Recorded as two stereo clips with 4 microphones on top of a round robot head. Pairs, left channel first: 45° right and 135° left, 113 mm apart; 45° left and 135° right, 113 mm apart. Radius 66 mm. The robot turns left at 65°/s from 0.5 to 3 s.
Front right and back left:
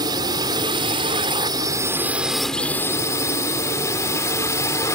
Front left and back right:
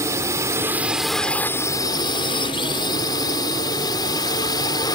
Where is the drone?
170° left; by 5.0 s 10° left.